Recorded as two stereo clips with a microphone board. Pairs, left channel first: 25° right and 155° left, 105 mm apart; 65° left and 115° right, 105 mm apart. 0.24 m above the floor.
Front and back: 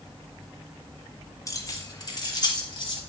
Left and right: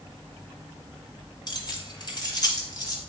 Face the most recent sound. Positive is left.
turn(degrees=20)